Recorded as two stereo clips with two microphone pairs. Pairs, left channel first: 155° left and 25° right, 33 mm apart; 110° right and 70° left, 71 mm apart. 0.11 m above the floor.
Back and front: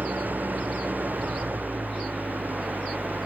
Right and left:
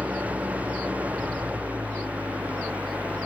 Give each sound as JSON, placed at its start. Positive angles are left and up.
{"t": 0.0, "sound": "an engine running", "azimuth_deg": 0}